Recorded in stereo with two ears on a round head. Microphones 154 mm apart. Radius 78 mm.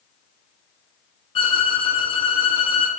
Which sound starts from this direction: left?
A violin, at 1.4 s.